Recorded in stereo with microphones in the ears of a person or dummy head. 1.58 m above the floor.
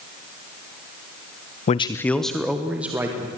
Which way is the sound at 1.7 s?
40° left (ahead or behind).